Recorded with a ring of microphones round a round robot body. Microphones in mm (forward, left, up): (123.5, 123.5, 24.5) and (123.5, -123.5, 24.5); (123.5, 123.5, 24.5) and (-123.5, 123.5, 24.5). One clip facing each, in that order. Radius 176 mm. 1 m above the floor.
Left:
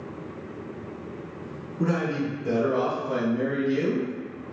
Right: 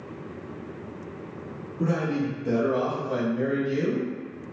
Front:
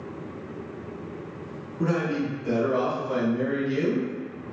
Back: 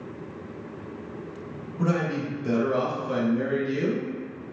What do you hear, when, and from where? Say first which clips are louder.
1.8 s a man speaking: even, front 1 dB; 155° left, 1.5 m; by 4.1 s 130° right, 1.0 m